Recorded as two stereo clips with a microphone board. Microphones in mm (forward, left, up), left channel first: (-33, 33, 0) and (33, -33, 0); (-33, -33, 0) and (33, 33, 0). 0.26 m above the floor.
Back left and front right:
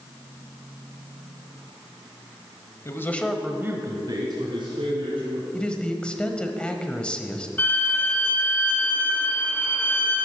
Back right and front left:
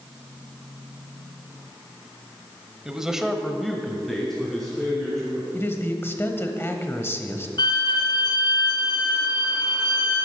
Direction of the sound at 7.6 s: 160° right.